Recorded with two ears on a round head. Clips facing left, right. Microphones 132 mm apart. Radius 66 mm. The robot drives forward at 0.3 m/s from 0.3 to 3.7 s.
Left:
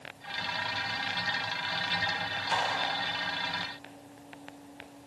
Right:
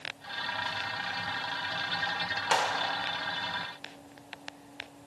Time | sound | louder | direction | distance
2.5 | a clap | right 2 dB | 75° right (ahead or behind) | 2.5 m